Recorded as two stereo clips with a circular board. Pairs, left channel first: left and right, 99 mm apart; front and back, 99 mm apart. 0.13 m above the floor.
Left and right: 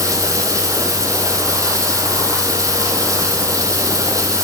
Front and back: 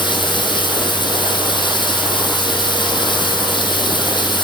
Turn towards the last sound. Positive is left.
turn(degrees=-35)